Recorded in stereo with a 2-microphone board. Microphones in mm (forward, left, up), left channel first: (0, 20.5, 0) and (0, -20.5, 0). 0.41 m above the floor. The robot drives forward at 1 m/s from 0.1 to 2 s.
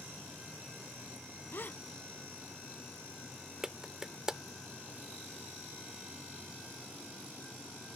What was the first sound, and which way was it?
A gasp, 60° left (ahead or behind).